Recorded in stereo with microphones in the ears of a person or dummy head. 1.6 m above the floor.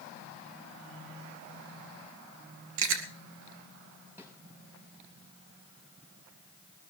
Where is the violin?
I don't hear a violin.